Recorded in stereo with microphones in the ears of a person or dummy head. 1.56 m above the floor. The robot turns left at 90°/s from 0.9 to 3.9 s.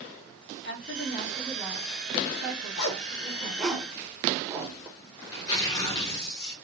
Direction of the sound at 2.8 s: 70° left (ahead or behind).